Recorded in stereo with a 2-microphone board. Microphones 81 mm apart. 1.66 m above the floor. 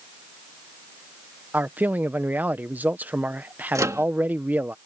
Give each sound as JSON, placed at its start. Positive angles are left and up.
{"t": 1.5, "sound": "a man speaking", "side_deg": -20}
{"t": 3.8, "sound": "a microwave", "side_deg": -40}